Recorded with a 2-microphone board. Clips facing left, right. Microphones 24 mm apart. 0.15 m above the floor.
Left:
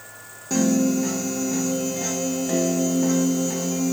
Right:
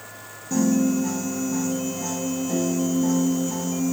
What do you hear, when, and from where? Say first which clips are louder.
0.5 s a piano: left 1 dB; 65° left (ahead or behind), 0.7 m